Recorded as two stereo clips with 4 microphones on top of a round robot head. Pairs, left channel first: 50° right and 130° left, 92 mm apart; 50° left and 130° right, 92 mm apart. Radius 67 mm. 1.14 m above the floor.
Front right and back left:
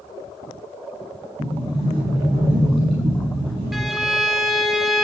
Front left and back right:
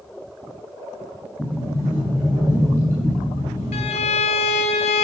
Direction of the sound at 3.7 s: 40° left.